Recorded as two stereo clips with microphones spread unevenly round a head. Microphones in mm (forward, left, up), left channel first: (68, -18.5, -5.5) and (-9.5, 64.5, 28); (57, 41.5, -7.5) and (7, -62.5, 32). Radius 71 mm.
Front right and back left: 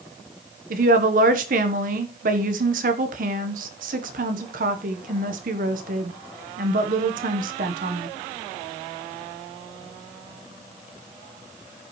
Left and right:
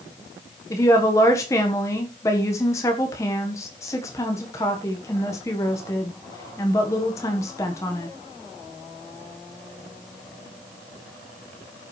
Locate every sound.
0.7 s a woman speaking: 135° left, 1.3 m